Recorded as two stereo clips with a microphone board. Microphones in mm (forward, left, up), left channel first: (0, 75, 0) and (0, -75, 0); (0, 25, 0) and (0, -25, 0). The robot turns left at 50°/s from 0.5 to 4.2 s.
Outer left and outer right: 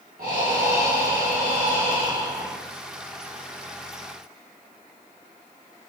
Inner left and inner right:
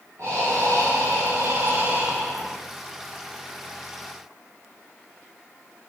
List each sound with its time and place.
0.2 s breathing: 70° right, 4 m; by 2.6 s 175° right, 4 m